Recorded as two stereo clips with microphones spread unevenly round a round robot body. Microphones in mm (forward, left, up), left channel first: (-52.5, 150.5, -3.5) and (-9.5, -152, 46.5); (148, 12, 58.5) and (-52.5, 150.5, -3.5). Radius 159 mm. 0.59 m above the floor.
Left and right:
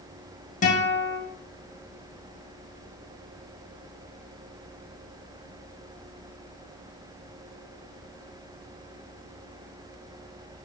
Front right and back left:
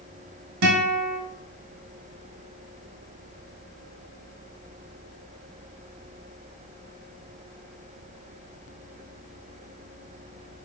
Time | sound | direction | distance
0.6 | a guitar | 165° left | 0.9 m